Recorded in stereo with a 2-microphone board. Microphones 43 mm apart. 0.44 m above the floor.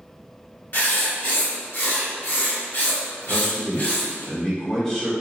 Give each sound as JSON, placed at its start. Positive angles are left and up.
{"t": 0.7, "sound": "writing", "side_deg": 55, "distance_m": 1.3}
{"t": 3.2, "sound": "a man speaking", "side_deg": 15, "distance_m": 1.2}